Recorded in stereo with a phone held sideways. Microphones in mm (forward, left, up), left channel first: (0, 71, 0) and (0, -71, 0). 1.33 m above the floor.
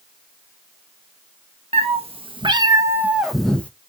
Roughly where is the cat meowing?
Right.